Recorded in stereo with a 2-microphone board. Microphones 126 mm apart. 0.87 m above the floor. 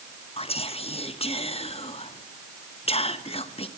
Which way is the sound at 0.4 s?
50° left (ahead or behind).